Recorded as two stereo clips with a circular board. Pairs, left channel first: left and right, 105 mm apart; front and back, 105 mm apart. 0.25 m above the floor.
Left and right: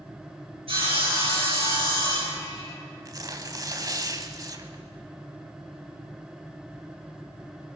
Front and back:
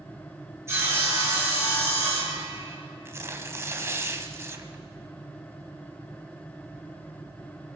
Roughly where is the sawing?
Behind right.